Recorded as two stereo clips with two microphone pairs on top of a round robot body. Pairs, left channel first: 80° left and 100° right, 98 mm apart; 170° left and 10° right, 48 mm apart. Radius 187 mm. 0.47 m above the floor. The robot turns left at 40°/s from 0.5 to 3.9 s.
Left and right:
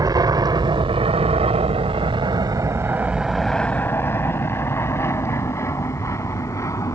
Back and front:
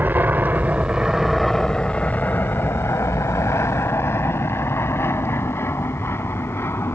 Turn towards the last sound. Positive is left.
turn(degrees=140)